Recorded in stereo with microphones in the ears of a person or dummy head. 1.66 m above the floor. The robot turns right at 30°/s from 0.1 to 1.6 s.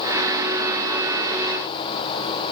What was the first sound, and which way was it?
Only background noise.